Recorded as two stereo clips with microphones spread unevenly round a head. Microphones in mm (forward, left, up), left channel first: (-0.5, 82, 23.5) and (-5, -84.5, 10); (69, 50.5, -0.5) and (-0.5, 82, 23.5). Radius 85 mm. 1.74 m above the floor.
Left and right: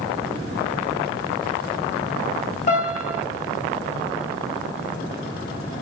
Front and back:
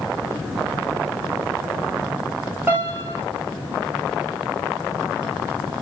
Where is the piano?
120° left, 2 m.